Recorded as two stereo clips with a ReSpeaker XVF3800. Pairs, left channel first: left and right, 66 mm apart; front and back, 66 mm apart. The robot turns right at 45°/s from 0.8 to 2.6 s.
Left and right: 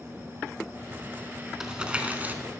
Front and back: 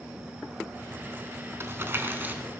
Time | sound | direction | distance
1.6 | crumpling | 170° right | 0.9 m